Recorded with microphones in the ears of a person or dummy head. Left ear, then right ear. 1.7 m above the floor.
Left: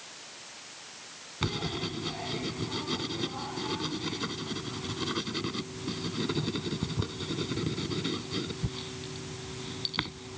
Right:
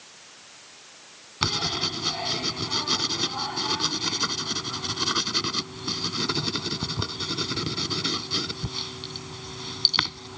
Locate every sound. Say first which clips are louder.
1.4 s writing: right 8 dB; 45° right (ahead or behind)